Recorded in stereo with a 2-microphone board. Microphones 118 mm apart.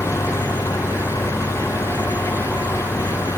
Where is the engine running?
25° left (ahead or behind).